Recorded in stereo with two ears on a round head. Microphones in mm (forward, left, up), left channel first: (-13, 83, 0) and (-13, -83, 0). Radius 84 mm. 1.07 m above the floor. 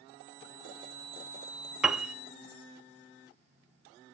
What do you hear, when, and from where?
1.8 s a piano: 5° right (ahead or behind), 0.9 m